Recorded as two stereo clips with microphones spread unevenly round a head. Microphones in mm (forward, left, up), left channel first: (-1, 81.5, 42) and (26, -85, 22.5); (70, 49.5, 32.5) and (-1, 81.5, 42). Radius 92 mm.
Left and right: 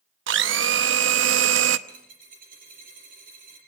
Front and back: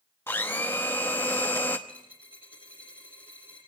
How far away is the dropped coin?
About 5.5 m.